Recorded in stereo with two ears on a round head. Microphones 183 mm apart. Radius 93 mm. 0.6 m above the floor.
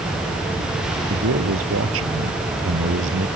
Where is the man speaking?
70° right (ahead or behind); by 3.3 s 60° right (ahead or behind).